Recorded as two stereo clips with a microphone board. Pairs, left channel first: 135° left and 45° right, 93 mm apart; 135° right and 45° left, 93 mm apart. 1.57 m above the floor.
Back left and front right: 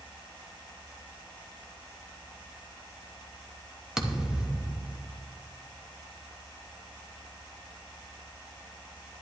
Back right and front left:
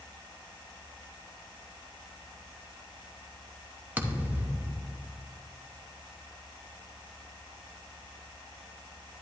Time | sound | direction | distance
4.0 | a thud | 30° left | 0.9 m